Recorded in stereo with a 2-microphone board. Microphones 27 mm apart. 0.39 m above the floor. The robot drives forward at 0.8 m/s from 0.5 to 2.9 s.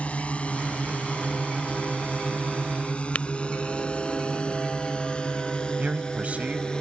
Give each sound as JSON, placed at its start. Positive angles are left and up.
{"t": 0.0, "sound": "a drone", "side_deg": 55}
{"t": 3.1, "sound": "tapping", "side_deg": 65}
{"t": 5.8, "sound": "a man speaking", "side_deg": -60}